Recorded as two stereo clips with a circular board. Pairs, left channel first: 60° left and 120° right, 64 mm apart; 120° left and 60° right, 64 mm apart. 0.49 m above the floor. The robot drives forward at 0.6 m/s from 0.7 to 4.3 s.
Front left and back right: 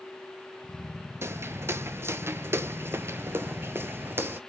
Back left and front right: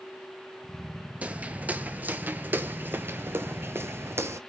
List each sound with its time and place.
1.2 s footsteps: 115° right, 0.5 m; by 4.4 s 75° right, 0.6 m